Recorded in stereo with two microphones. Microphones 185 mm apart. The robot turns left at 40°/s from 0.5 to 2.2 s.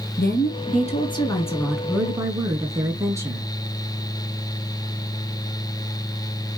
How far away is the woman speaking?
About 4 m.